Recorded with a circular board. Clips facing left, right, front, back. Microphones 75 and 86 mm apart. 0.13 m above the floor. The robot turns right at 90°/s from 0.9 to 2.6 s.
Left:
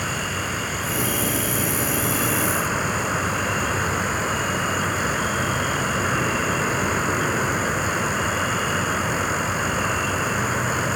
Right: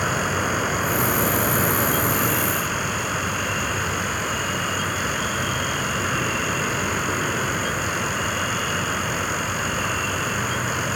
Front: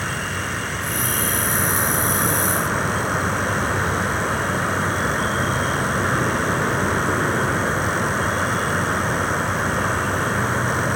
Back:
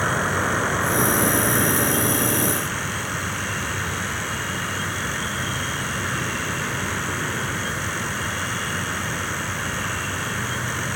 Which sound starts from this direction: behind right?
An insect, at 0.0 s.